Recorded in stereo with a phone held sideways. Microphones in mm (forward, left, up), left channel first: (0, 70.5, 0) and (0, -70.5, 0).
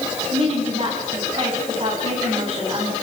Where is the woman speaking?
45° right (ahead or behind), 9 m.